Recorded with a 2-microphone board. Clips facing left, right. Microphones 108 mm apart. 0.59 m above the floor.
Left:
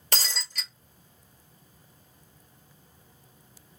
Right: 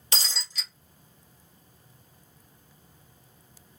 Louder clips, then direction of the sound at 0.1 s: Left 2 dB; 55° left (ahead or behind).